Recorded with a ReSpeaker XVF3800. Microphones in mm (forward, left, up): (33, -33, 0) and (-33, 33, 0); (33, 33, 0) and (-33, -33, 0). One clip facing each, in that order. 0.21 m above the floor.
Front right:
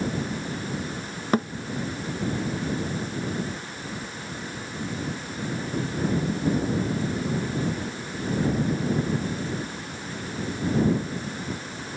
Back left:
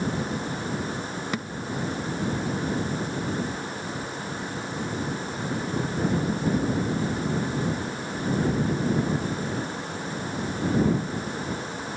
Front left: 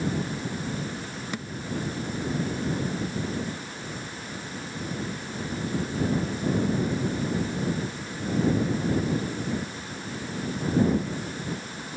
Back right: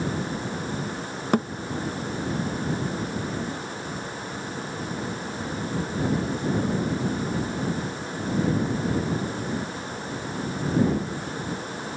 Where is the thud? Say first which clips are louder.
Front right 11 dB, back right 15 dB; 95° right.